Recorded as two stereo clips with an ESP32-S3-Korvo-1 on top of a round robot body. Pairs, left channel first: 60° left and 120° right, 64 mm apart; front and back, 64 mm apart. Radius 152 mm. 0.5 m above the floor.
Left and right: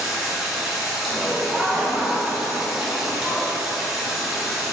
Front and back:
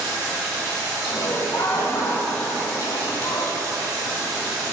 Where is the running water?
155° left, 5 m.